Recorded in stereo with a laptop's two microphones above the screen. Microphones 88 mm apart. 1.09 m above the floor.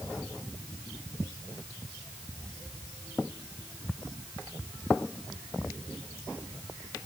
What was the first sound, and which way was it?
Only background noise.